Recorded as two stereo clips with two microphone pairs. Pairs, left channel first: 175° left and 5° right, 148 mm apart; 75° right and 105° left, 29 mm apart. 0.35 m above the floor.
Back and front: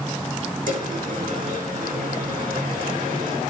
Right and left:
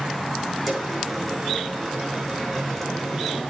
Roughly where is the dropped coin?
Ahead.